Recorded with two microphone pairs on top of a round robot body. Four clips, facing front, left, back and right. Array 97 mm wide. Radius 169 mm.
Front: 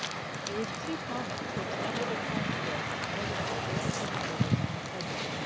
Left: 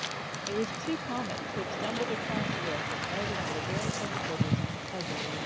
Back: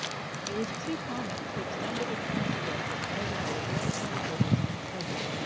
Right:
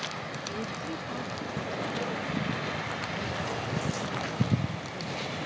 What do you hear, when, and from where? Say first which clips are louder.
0.5 s a woman speaking: left 6 dB, back 2 dB; 70° left